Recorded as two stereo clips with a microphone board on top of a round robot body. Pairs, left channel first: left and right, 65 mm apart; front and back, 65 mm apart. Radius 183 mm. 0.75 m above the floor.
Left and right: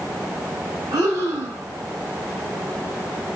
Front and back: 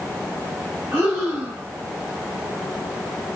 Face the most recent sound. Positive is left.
turn(degrees=-125)